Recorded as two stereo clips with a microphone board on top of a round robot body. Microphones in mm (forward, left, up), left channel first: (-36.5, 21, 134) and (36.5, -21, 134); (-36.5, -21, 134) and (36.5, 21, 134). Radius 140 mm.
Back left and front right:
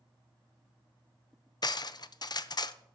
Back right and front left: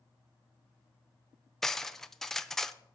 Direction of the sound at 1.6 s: 125° left.